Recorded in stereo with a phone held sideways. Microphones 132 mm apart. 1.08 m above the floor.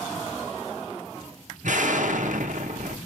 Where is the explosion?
70° right (ahead or behind), 0.5 m.